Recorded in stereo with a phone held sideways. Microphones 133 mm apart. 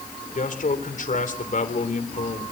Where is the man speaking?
75° left (ahead or behind), 3.5 m.